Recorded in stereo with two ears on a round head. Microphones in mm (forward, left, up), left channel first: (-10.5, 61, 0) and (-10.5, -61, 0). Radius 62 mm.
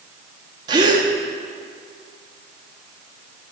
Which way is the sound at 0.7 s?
30° right (ahead or behind).